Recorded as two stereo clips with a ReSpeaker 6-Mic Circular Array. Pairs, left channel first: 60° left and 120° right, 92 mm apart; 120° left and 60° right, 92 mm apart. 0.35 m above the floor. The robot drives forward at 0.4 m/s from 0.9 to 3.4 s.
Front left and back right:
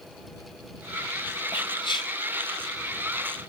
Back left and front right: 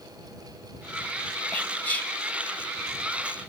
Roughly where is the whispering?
Ahead left.